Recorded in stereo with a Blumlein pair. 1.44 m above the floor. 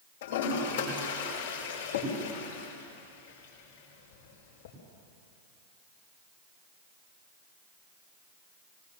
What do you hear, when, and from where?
0.2 s a toilet flushing: 55° left, 6 m